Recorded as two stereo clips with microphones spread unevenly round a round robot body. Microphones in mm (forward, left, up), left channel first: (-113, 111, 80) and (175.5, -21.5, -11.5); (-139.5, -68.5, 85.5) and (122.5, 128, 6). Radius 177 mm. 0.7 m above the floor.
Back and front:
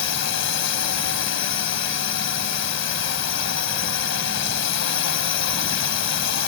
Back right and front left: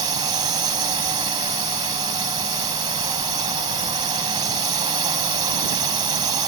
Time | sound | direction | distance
0.0 | a drone | 115° left | ?